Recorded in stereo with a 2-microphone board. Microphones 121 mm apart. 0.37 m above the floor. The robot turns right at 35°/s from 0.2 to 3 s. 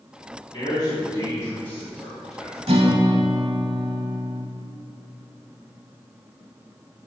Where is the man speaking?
50° left (ahead or behind), 2 m; by 2.6 s 5° right (ahead or behind), 2 m.